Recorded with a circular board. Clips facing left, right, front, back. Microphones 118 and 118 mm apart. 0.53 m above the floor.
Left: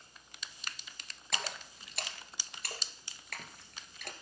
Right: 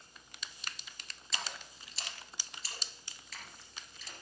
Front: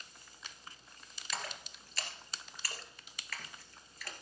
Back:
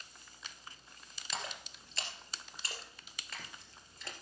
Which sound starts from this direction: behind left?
A splash, at 1.3 s.